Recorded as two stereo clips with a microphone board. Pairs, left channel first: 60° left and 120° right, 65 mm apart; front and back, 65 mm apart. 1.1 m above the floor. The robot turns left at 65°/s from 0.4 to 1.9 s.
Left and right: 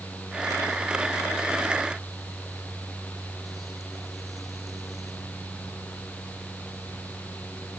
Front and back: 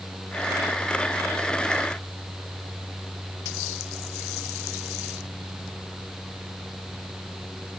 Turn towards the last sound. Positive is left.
No sound to turn to.